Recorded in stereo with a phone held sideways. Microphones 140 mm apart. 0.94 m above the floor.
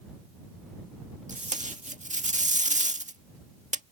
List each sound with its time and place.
1.3 s tape being pulled: 65° right (ahead or behind)